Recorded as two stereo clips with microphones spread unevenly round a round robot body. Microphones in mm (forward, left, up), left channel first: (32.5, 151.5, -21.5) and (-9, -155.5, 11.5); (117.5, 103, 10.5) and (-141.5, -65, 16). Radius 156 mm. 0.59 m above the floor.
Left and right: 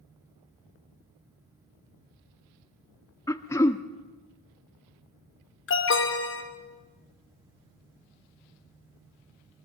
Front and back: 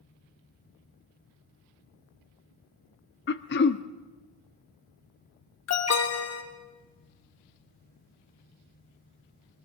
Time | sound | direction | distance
3.3 | throat clearing | 15° left | 0.8 m
5.7 | an alarm | 50° left | 2.5 m